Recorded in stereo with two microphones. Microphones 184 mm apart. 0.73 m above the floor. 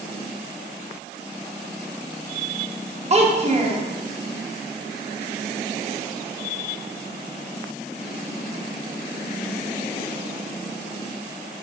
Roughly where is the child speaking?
Right.